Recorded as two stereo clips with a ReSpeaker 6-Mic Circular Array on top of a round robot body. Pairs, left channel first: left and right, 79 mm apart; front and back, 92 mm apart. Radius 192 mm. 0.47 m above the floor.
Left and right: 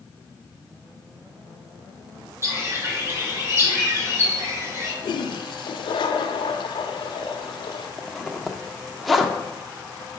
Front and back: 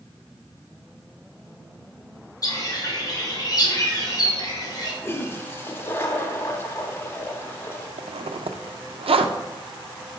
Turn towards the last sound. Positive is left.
turn(degrees=180)